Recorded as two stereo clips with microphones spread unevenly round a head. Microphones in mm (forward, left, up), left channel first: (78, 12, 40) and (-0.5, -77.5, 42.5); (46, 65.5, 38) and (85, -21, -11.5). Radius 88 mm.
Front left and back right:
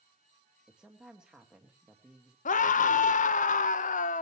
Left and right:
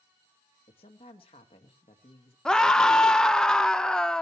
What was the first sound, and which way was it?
A woman speaking, 145° left.